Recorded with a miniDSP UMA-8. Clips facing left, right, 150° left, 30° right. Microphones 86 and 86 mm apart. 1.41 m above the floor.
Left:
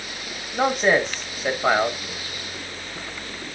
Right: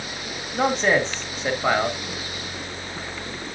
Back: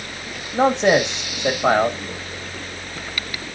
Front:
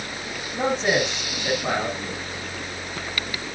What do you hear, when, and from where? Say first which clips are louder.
0.5 s a man speaking: left 1 dB, back 6 dB; 170° left, 1.7 m